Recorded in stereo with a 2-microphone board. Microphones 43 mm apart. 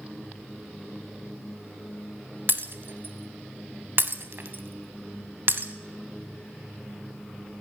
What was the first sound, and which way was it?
Breaking glass, 55° right (ahead or behind).